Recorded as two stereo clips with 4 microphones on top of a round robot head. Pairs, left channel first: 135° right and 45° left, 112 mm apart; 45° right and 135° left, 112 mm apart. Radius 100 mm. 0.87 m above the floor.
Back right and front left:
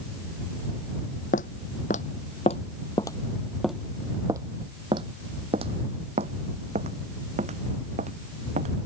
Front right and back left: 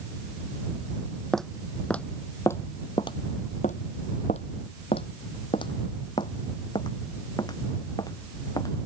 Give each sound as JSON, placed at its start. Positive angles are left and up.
{"t": 1.3, "sound": "footsteps", "azimuth_deg": -130}